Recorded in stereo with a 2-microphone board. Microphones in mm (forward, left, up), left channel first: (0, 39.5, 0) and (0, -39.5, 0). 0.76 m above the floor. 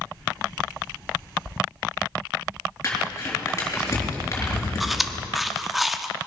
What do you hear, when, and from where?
2.8 s crumpling: 30° left (ahead or behind), 4 m
4.8 s chewing: centre (ahead or behind), 0.6 m